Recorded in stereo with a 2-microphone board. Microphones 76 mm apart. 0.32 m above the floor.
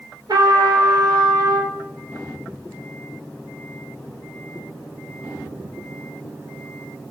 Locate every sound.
0.3 s a trumpet: 70° right (ahead or behind), 0.8 m